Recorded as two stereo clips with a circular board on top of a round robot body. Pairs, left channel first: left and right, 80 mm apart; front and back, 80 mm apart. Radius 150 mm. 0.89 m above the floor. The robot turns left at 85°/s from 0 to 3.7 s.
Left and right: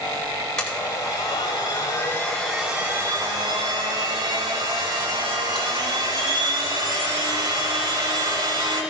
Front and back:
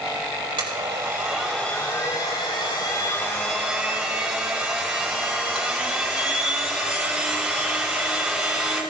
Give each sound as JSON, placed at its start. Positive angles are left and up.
{"t": 0.6, "sound": "a blender", "azimuth_deg": 175, "distance_m": 5.0}